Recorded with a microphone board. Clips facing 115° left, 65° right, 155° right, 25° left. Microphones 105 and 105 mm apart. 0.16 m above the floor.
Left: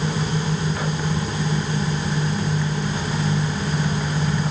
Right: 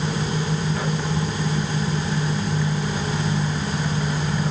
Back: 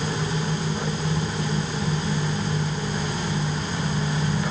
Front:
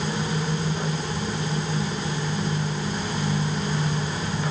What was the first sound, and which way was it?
Only background noise.